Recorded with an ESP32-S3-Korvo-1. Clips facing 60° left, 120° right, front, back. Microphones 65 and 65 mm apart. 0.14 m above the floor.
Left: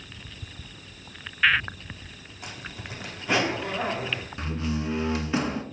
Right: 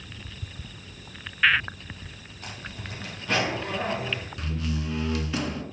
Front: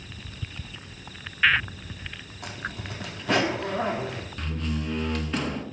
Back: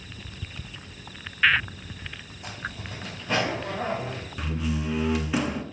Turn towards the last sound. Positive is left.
turn(degrees=105)